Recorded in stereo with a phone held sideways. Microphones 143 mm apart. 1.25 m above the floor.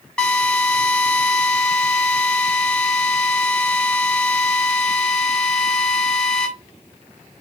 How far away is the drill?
About 5.5 m.